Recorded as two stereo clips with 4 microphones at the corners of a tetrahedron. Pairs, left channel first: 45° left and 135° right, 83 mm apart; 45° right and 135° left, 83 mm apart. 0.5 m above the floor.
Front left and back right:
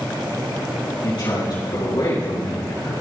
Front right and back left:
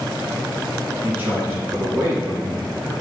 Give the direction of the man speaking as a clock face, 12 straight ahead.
10 o'clock.